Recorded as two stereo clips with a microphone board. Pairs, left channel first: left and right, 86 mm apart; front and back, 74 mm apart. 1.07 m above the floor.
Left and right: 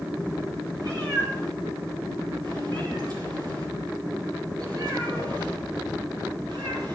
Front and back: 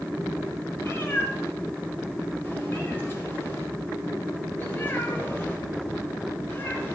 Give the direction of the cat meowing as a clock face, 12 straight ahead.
2 o'clock.